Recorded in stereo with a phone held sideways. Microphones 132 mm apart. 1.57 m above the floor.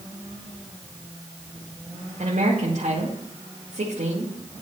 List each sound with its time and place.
2.2 s a woman speaking: 75° right (ahead or behind), 1.9 m